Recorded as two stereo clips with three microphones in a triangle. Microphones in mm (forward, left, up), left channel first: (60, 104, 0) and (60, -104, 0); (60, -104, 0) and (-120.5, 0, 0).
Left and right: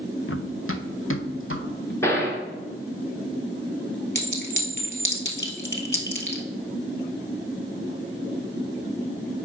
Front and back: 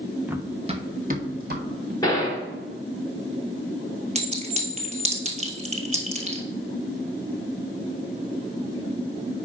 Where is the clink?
100° left, 1.3 m.